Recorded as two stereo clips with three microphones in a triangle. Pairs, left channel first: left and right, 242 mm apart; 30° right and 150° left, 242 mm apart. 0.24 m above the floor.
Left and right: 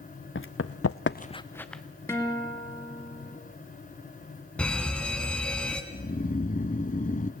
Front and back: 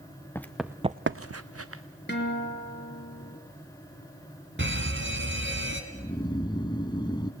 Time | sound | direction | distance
0.3 | running footsteps | 50° left | 1.1 m
2.1 | a guitar | 10° left | 2.5 m
4.6 | an alarm | 175° left | 2 m
5.9 | snoring | 40° left | 0.9 m